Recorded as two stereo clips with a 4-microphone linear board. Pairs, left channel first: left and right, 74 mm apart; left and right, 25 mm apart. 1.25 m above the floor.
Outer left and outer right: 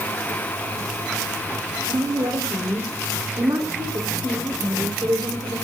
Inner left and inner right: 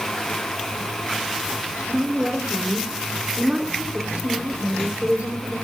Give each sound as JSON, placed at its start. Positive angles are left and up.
{"t": 1.9, "sound": "a woman speaking", "side_deg": -60, "distance_m": 3.5}